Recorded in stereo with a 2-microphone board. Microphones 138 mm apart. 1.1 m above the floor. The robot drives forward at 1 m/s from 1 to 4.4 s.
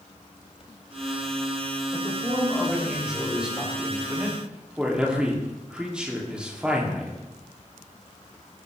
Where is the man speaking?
5° right (ahead or behind), 5 m.